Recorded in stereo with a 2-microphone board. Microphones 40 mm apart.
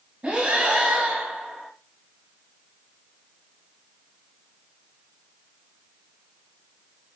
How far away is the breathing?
About 1.3 m.